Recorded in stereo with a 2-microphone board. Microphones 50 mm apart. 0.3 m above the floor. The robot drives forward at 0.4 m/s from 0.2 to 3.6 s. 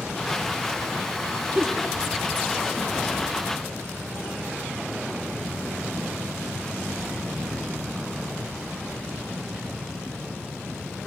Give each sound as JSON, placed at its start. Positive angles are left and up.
{"t": 1.6, "sound": "a giggle", "side_deg": -20, "distance_m": 3.5}